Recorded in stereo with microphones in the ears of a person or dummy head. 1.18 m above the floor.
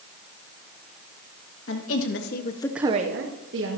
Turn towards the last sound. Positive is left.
turn(degrees=-70)  # may be behind; listen again after turning